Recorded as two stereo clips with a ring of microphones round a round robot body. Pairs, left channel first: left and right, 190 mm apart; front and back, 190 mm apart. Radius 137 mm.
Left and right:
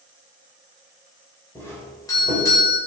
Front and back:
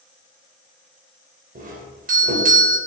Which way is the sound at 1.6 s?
160° left.